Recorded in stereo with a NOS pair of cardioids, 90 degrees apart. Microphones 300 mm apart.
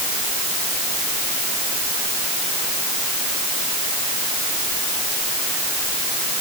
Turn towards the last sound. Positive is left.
No sound to turn to.